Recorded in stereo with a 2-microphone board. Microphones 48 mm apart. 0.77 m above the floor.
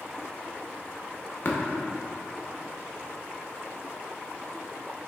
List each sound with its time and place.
1.4 s tapping: 50° left (ahead or behind), 0.7 m